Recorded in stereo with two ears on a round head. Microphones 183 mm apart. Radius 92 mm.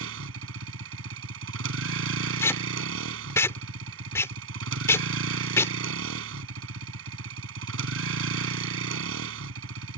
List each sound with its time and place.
0.0 s a vehicle: 75° right (ahead or behind)
2.4 s tape being pulled: 15° left (ahead or behind)